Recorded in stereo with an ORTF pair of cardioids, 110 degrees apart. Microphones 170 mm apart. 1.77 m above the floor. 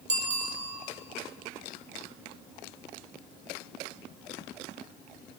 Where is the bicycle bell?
40° right, 6.5 m.